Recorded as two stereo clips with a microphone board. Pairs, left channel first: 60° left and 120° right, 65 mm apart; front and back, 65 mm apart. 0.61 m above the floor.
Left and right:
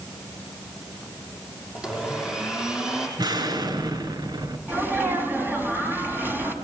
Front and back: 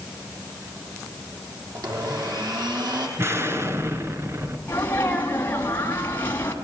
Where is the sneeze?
60° right, 5 m.